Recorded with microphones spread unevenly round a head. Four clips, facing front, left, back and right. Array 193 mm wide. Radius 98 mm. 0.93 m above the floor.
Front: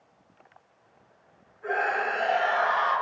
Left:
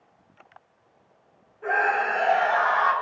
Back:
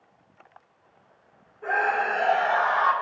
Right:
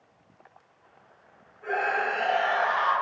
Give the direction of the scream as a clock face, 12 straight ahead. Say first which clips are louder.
Left 4 dB, back 3 dB; 7 o'clock.